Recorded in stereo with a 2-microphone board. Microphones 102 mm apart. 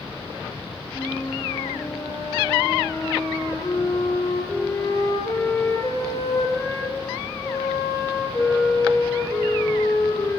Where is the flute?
30° left (ahead or behind), 3 m.